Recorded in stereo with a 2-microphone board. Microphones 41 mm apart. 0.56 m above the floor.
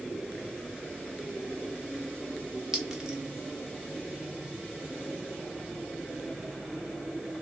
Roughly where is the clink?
Centre.